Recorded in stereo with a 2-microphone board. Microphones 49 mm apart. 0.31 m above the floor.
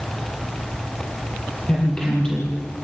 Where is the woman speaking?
15° left (ahead or behind), 6.5 m.